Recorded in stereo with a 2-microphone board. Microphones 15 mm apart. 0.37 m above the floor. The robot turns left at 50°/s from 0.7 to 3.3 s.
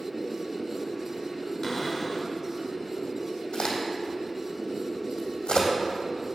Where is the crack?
75° left (ahead or behind), 3 m.